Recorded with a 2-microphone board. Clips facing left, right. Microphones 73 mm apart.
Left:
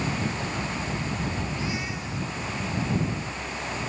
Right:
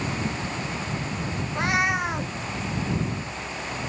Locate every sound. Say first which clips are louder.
1.6 s a cat meowing: right 8 dB; 70° right (ahead or behind)